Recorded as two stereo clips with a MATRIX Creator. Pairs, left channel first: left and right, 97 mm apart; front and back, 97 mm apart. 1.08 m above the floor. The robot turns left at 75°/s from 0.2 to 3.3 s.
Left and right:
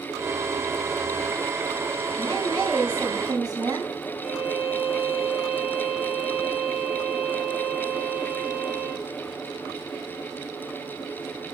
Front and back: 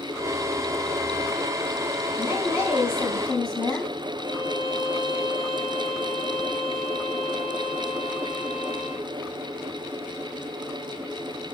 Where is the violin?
10° right, 3 m.